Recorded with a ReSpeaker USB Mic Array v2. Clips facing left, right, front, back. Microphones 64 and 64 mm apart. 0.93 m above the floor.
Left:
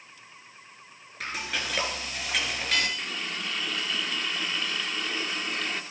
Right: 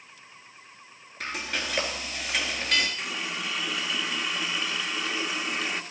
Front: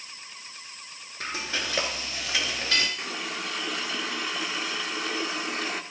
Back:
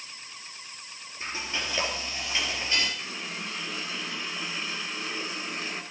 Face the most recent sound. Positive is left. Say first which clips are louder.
# right 1 dB, front 3 dB
turn(degrees=-10)